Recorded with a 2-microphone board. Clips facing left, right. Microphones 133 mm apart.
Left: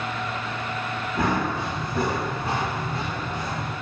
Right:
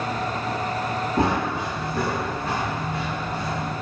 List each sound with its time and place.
1.2 s running footsteps: 30° right (ahead or behind), 1.0 m; by 3.7 s 45° left (ahead or behind), 1.8 m